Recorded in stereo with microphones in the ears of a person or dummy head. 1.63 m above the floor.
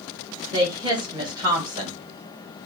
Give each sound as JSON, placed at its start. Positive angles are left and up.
{"t": 0.5, "sound": "a woman speaking", "side_deg": -15, "distance_m": 1.6}